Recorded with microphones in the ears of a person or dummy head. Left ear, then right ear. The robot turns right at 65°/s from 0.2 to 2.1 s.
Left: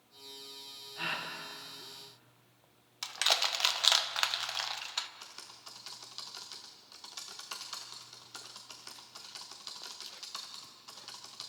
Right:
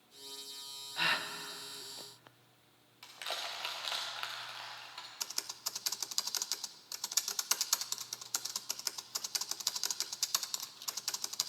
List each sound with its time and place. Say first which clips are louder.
1.0 s a gasp: right 4 dB; 35° right (ahead or behind), 1.1 m; by 1.3 s 15° right (ahead or behind), 1.1 m
3.0 s crushing: left 11 dB; 60° left (ahead or behind), 1.1 m
5.2 s typing on a keyboard: right 8 dB; 70° right (ahead or behind), 0.5 m